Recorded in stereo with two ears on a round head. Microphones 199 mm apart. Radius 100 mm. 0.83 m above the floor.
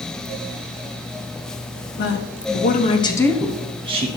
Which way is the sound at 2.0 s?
55° left (ahead or behind).